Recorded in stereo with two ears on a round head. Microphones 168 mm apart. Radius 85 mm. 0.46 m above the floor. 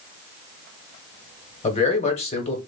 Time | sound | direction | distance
1.6 | a man speaking | 35° left (ahead or behind) | 1.0 m